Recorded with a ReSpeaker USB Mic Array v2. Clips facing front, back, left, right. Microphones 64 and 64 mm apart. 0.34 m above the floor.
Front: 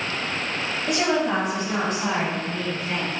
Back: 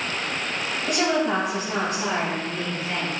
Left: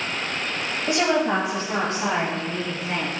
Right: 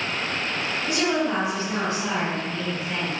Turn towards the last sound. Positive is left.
turn(degrees=85)